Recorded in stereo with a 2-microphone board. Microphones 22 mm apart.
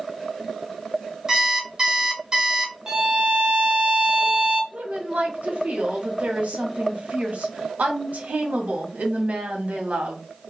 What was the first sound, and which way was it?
An alarm clock, 25° right (ahead or behind).